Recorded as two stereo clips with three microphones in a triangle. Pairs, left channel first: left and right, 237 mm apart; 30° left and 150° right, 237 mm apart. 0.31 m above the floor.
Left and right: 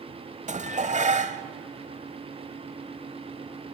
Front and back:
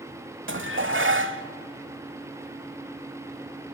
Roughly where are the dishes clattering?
Behind right.